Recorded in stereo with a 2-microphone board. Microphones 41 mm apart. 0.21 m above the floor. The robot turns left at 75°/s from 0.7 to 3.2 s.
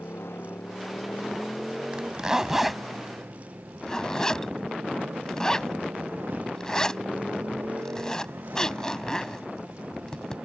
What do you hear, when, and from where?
0.0 s a motorcycle: 75° left; by 10.5 s 115° right
1.9 s a zipper: 25° right (ahead or behind); by 10.4 s 15° left (ahead or behind)